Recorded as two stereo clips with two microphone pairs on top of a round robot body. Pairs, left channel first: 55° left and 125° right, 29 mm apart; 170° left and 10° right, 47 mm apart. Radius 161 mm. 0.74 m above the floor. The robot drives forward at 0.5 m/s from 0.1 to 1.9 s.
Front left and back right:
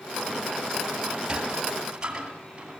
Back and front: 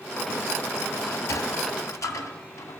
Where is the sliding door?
165° left, 1.8 m; by 2.8 s 170° left, 2 m.